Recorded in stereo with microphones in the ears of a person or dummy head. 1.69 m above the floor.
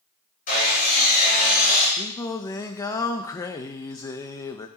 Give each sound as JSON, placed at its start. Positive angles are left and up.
{"t": 0.5, "sound": "sawing", "side_deg": 45, "distance_m": 5.0}
{"t": 2.0, "sound": "singing", "side_deg": 20, "distance_m": 0.5}